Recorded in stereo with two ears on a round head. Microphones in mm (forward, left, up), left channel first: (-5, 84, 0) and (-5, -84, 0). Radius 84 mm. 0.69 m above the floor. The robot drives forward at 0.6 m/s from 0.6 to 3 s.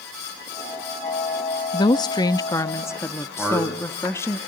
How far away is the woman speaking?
About 0.6 m.